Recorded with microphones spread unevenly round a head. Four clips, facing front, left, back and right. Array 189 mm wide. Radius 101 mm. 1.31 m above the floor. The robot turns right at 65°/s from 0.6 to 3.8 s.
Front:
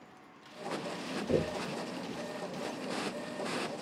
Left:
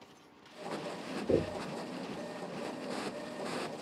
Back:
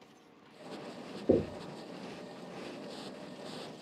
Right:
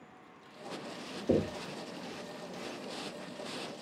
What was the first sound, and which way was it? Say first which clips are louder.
Knocking: right 1 dB, back 3 dB; 165° right.